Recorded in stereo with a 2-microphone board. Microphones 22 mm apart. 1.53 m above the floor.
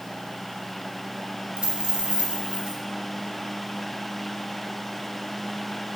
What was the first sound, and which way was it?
A dropped coin, 55° right (ahead or behind).